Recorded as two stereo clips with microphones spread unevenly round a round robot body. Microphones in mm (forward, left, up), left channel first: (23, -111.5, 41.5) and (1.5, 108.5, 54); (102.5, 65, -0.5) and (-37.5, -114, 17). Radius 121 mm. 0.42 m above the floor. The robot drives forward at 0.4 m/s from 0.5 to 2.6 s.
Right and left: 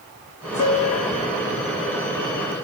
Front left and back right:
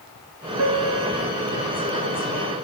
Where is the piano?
120° right, 4 m; by 1.3 s 125° right, 4 m.